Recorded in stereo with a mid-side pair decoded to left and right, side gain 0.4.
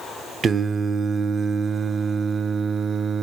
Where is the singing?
50° right, 0.8 m.